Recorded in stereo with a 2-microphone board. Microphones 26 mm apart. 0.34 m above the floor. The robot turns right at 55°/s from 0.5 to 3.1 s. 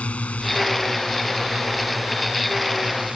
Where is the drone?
105° left; by 3.2 s 110° right.